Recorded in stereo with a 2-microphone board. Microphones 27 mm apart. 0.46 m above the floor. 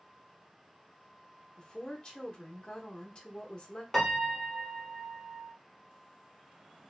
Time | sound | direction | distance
1.6 | a woman speaking | 30° left (ahead or behind) | 0.8 m
3.9 | a piano | 15° left (ahead or behind) | 0.8 m